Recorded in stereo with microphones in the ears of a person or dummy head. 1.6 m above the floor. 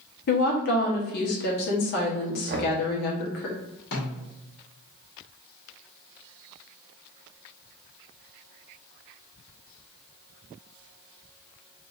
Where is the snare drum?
45° left (ahead or behind), 1.5 m.